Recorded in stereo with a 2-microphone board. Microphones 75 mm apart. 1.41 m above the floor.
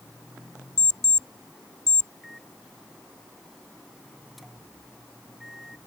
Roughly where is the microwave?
Centre.